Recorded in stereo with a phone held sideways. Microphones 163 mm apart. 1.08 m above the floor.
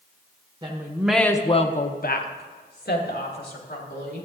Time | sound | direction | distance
0.6 | a woman speaking | 30° right (ahead or behind) | 0.9 m